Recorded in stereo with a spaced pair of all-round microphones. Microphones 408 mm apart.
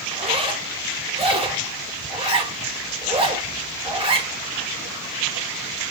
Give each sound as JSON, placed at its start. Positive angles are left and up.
{"t": 0.1, "sound": "a zipper", "side_deg": -15, "distance_m": 1.1}